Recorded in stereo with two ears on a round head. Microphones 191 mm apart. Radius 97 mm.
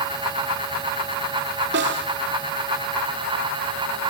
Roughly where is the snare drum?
Right.